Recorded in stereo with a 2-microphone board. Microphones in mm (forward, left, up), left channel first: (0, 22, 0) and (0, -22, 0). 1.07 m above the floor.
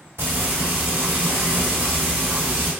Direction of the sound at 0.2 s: 75° right (ahead or behind).